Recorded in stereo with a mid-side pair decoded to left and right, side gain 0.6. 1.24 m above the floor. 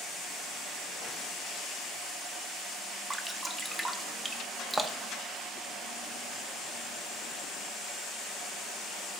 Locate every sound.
3.1 s dripping: 15° right, 0.9 m